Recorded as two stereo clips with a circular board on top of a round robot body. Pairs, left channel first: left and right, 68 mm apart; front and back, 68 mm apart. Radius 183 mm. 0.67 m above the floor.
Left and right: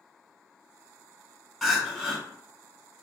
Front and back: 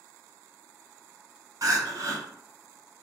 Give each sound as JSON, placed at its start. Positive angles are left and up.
{"t": 1.6, "sound": "crying", "azimuth_deg": 180, "distance_m": 1.3}